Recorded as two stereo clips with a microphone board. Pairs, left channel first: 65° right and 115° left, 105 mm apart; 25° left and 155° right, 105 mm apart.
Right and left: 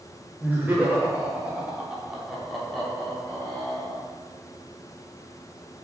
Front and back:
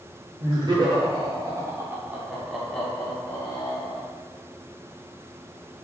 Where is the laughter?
Straight behind, 1.4 m; by 4.1 s 5° right, 1.2 m.